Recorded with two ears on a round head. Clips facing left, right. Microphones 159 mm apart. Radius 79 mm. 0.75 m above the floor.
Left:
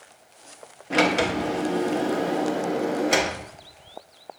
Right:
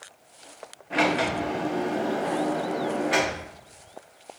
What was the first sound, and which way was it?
A sliding door, 55° left (ahead or behind).